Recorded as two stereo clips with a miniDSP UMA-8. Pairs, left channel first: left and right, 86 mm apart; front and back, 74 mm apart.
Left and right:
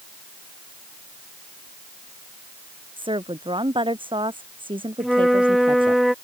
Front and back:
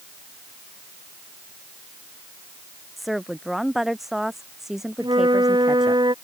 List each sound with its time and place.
3.0 s a woman speaking: 90° right; by 6.0 s 100° right
5.0 s a flute: straight behind